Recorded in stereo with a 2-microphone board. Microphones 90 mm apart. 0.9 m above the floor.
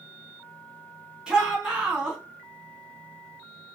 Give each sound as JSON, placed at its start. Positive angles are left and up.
{"t": 1.3, "sound": "a shout", "side_deg": -5, "distance_m": 1.5}